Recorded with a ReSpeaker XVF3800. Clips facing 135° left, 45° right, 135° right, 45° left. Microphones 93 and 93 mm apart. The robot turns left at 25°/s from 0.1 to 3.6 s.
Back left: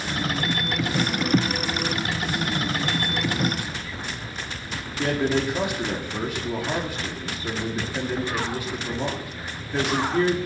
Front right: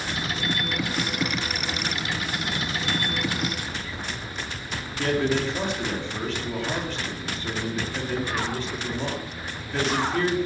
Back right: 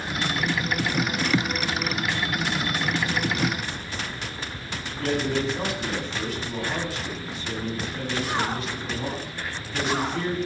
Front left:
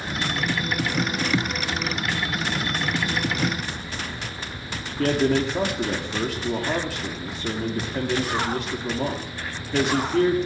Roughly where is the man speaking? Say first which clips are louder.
Back left 1 dB, front left 5 dB; ahead left.